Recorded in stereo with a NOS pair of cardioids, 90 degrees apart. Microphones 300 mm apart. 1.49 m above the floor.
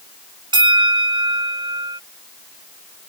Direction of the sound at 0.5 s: 15° right.